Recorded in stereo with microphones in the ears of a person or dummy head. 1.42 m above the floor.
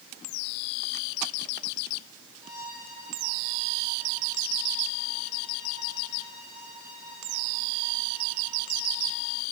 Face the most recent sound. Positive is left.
turn(degrees=85)